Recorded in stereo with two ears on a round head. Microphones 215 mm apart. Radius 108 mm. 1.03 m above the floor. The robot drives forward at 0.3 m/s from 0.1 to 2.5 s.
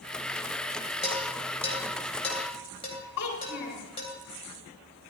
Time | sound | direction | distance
1.0 | dishes clattering | 25° left (ahead or behind) | 3 m
3.2 | a child speaking | 75° left (ahead or behind) | 3.5 m